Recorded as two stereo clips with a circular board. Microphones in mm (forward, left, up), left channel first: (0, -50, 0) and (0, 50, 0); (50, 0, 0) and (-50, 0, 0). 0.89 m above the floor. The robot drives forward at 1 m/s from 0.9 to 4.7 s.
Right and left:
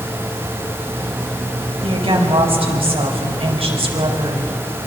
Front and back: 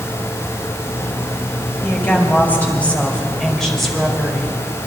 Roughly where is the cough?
I don't hear a cough.